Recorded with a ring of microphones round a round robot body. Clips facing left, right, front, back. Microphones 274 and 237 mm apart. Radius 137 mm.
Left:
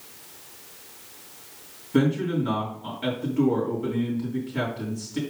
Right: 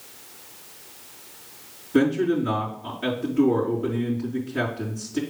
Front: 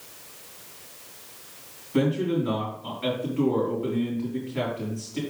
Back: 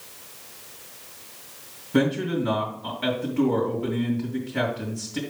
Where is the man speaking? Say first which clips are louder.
Right 3 dB, back 1 dB; 155° left, 3 m.